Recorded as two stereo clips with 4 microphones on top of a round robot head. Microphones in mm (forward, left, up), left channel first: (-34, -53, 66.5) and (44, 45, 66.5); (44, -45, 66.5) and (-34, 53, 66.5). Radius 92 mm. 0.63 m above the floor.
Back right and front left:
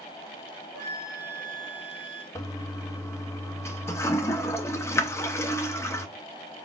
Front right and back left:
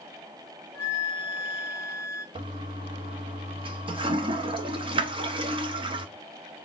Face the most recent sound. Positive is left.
turn(degrees=165)